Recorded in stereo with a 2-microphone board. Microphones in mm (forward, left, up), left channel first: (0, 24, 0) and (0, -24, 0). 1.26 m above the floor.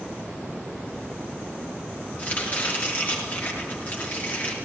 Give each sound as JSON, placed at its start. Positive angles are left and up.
{"t": 2.2, "sound": "chopping", "side_deg": 35, "distance_m": 5.5}